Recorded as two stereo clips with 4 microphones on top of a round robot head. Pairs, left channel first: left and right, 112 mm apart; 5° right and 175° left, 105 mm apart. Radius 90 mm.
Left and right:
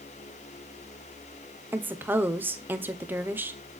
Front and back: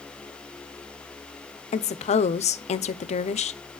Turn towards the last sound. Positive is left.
turn(degrees=-15)